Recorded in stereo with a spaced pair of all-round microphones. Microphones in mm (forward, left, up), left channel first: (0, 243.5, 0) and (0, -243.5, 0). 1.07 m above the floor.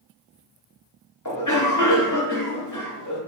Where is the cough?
35° left (ahead or behind), 1.0 m.